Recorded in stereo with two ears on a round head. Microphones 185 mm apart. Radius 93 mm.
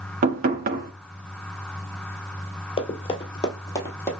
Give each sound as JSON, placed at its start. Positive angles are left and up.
{"t": 0.2, "sound": "knocking", "side_deg": -40, "distance_m": 1.0}
{"t": 2.8, "sound": "running footsteps", "side_deg": 25, "distance_m": 1.4}